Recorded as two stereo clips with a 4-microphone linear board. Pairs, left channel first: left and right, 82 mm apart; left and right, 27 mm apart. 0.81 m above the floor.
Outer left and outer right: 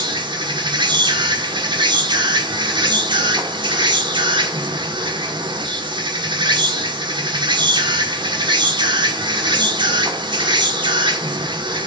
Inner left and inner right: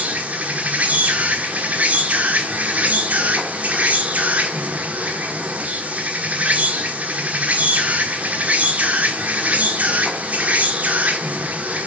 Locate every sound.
0.0 s an insect: 70° right (ahead or behind), 1.6 m